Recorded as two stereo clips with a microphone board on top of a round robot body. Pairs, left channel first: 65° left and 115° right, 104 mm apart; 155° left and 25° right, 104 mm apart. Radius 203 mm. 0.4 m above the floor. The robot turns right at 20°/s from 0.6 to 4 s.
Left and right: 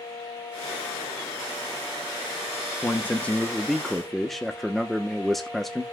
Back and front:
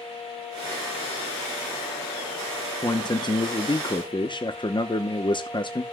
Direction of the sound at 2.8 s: 130° left.